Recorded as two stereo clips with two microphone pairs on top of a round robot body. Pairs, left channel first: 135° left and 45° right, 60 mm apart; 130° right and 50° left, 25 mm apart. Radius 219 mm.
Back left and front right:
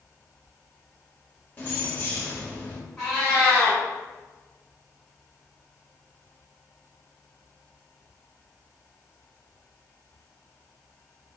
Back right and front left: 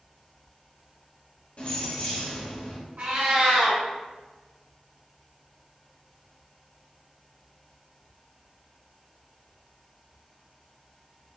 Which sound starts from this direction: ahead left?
A cat meowing, at 3.0 s.